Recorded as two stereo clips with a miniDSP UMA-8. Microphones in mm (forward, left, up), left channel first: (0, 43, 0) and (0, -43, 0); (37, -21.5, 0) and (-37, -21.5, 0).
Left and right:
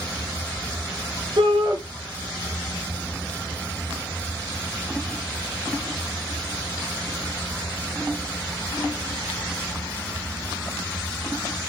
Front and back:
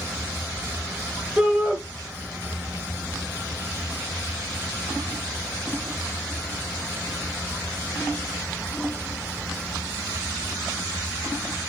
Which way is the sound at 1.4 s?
100° right.